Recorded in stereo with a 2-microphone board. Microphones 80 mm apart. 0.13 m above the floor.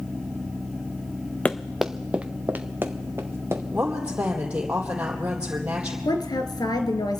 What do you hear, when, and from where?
1.4 s running footsteps: 15° left (ahead or behind), 0.7 m; by 3.6 s 30° right (ahead or behind), 2.5 m
3.7 s a woman speaking: 15° right (ahead or behind), 4 m
6.0 s a woman speaking: 55° left (ahead or behind), 1.9 m